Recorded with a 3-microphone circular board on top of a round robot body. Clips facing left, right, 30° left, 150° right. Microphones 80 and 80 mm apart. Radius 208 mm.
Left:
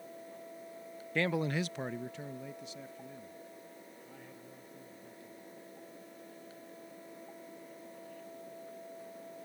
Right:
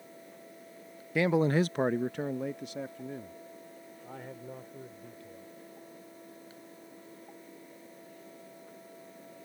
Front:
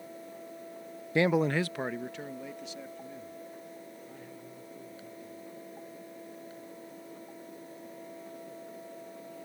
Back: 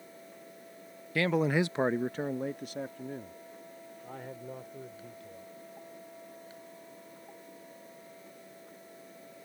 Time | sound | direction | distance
1.1 | a man speaking | 15° right | ?